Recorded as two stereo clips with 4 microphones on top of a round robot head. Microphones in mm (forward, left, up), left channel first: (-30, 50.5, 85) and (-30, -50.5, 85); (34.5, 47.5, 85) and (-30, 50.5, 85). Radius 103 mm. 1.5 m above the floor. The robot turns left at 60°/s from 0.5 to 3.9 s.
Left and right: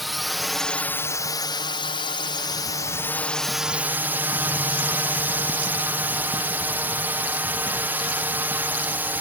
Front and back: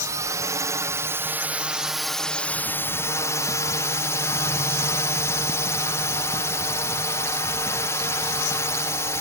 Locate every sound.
0.0 s a drone: straight behind; by 9.2 s 25° right